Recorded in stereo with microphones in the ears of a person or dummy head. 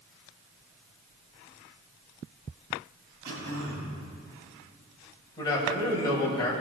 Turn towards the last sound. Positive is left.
turn(degrees=25)  # may be behind; listen again after turning